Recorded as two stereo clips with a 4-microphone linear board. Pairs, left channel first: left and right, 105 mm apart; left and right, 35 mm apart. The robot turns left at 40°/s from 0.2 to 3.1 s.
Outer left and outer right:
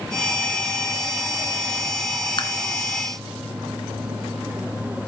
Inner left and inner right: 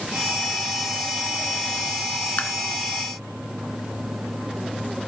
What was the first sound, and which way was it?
Tapping, 50° left (ahead or behind).